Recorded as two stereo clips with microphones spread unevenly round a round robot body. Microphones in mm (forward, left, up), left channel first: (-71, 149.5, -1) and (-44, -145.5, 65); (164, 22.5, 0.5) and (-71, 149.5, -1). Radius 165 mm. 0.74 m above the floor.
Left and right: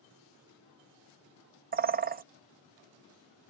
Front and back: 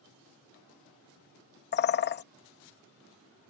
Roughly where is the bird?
Ahead.